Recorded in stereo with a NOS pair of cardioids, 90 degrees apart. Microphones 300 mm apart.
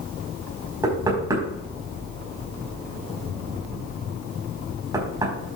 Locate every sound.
0.8 s knocking: 10° right, 4.5 m